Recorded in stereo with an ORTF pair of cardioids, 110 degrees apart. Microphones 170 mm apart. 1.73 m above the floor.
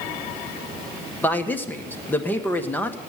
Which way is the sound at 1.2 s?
10° left.